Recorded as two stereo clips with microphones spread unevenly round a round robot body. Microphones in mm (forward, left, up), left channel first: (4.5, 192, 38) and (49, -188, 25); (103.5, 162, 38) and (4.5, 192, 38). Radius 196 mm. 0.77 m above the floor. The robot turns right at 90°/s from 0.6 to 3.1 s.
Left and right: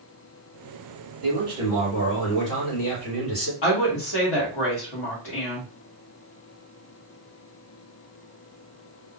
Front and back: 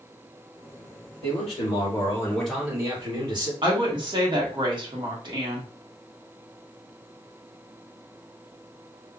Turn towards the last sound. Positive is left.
turn(degrees=120)